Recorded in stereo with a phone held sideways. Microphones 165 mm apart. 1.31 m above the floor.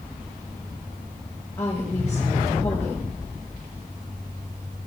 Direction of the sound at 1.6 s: 15° left (ahead or behind).